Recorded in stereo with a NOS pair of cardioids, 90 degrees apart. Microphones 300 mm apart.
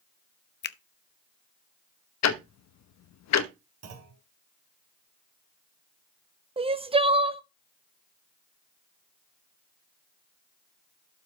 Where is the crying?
20° right, 0.9 m.